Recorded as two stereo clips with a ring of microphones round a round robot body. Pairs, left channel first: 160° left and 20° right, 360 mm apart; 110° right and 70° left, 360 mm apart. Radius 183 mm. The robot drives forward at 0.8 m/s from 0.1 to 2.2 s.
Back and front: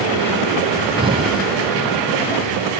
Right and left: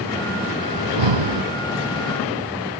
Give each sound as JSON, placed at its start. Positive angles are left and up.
{"t": 0.8, "sound": "breathing", "azimuth_deg": 55}